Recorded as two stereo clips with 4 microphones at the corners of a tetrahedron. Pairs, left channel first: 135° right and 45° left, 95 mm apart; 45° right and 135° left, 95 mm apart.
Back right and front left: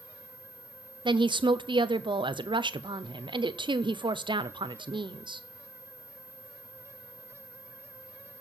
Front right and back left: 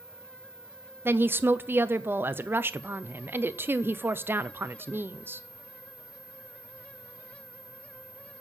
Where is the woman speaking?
70° left, 0.5 m.